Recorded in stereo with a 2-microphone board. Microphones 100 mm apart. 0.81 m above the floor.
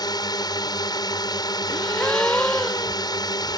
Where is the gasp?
15° left (ahead or behind).